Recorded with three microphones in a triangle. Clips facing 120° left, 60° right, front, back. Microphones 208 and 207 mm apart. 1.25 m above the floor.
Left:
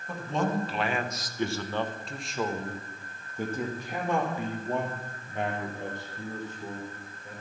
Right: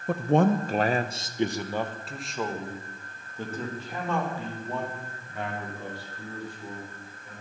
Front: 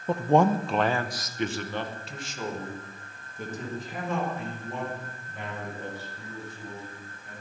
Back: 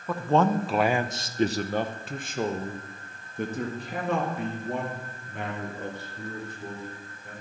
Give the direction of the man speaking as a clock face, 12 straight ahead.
2 o'clock.